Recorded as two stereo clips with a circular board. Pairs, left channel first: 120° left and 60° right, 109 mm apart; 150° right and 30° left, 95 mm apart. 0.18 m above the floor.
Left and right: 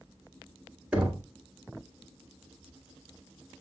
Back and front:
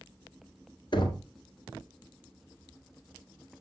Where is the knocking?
140° right, 1.7 m.